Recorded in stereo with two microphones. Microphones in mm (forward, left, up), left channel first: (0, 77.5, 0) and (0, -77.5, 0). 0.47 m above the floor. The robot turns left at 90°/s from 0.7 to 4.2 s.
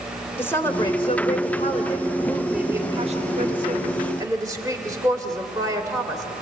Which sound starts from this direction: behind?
A woman speaking, at 0.4 s.